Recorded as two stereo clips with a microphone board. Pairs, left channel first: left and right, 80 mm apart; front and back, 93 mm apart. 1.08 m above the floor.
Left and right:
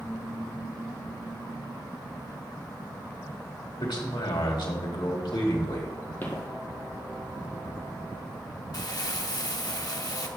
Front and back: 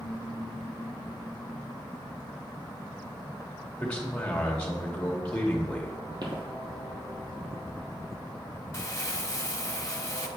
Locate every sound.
3.8 s a man speaking: 75° left, 1.8 m
6.2 s footsteps: 155° left, 2 m
8.7 s crumpling: 55° left, 0.9 m